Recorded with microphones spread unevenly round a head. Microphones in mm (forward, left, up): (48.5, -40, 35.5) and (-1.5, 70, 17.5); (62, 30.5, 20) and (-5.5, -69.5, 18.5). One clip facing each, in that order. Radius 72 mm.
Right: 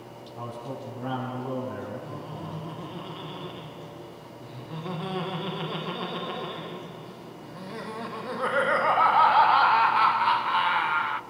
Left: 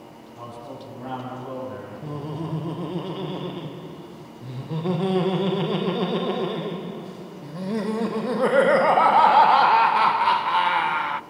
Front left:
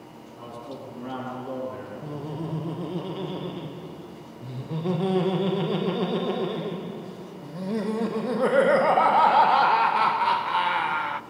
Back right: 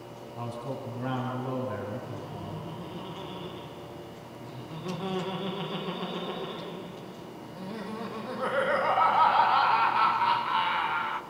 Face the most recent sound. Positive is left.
turn(degrees=95)